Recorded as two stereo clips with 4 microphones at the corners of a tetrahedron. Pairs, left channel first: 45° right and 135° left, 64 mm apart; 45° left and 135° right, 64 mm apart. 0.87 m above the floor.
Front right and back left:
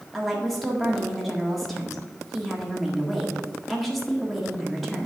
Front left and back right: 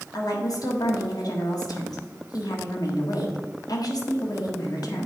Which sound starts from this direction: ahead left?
A woman speaking, at 0.1 s.